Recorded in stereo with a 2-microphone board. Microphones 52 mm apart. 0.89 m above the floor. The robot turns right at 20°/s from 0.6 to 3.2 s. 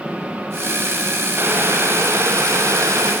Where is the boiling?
140° right, 6 m; by 3.1 s 105° right, 6 m.